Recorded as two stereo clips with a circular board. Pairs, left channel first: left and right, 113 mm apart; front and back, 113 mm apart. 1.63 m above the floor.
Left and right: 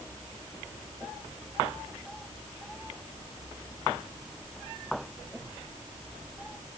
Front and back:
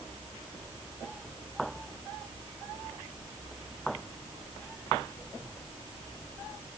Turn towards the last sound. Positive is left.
No sound to turn to.